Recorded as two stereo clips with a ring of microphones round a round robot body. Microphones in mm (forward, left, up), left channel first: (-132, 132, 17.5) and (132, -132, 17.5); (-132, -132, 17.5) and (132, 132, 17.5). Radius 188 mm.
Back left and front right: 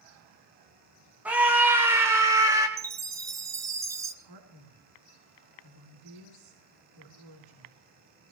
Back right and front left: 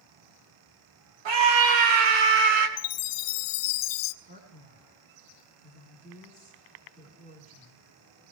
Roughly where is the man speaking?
Ahead.